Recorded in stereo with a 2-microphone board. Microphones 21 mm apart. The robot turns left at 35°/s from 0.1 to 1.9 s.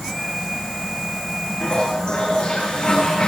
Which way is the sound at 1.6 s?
55° left (ahead or behind).